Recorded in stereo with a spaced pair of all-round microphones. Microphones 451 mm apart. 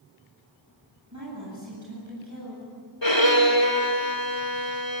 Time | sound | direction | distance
1.1 | a woman speaking | 35° right (ahead or behind) | 8 m
3.0 | a violin | 65° left (ahead or behind) | 2.5 m